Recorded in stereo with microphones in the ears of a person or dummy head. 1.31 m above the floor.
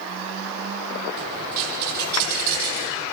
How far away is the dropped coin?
About 7 m.